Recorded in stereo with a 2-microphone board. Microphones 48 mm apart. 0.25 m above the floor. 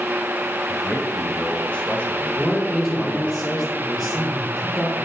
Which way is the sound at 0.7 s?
20° left (ahead or behind).